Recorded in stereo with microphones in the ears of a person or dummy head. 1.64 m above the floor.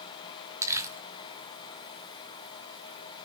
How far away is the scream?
No scream in this recording.